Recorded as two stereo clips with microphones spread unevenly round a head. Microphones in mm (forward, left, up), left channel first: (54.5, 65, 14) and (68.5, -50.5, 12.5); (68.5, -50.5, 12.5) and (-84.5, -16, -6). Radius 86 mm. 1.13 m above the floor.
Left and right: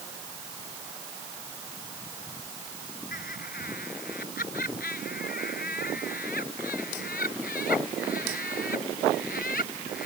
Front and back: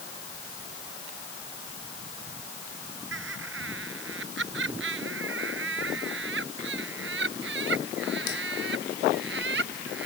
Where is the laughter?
140° left; by 10.1 s 135° left.